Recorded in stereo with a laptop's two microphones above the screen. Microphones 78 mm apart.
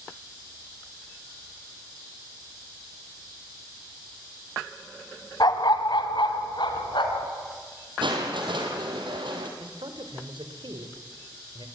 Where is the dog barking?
55° left (ahead or behind), 1.9 m; by 7.3 s 75° left (ahead or behind), 3.5 m.